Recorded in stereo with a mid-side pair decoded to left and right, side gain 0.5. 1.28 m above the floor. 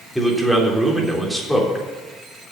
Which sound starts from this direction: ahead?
A man speaking, at 0.1 s.